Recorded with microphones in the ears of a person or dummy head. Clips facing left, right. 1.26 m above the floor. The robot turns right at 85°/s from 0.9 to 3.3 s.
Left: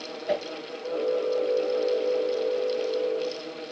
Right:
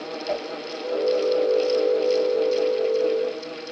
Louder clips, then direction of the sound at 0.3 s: Left 1 dB; 15° left (ahead or behind).